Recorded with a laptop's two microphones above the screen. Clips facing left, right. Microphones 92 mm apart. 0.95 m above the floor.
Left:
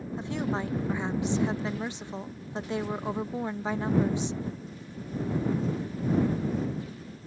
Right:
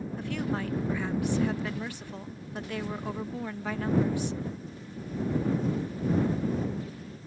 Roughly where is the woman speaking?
Left.